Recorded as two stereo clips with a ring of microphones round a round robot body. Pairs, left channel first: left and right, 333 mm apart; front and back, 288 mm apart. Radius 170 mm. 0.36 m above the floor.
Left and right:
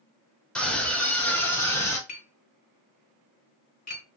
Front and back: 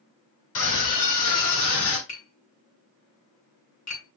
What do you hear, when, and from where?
0.6 s a scream: 5° left, 5 m; by 2.0 s 10° left, 4 m
2.1 s tapping: 25° left, 5.5 m